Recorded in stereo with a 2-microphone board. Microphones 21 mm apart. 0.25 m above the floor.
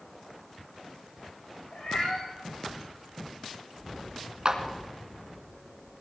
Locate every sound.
1.7 s a cat meowing: 80° left, 8 m
4.5 s a clap: 45° right (ahead or behind), 1.8 m